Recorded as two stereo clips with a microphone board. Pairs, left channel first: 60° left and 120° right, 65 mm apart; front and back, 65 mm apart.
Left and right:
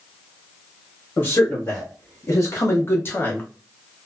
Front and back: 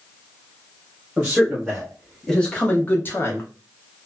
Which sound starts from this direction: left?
A man speaking, at 1.2 s.